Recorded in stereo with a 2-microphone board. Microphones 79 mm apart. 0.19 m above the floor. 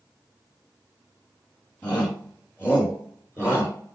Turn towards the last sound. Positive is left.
turn(degrees=35)  # may be behind; listen again after turning